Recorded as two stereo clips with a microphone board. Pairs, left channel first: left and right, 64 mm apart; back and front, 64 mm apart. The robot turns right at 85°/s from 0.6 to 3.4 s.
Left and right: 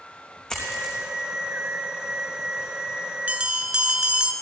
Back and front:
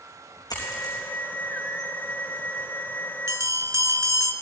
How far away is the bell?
About 0.7 m.